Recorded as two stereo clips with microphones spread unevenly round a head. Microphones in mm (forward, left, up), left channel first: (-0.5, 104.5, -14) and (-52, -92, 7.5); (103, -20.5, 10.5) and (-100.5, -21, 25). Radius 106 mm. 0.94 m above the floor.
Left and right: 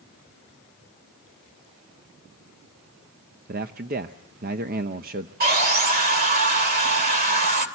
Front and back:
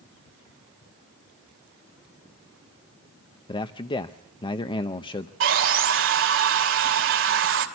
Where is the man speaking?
60° right, 0.7 m.